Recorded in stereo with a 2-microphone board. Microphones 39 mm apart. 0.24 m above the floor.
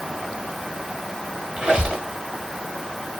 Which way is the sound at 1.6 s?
20° right (ahead or behind).